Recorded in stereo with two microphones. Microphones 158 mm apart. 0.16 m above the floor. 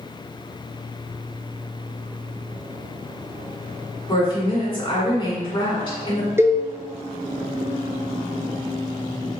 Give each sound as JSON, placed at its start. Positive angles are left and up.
{"t": 4.1, "sound": "a woman speaking", "side_deg": 30, "distance_m": 1.5}
{"t": 6.4, "sound": "a cowbell", "side_deg": -15, "distance_m": 0.6}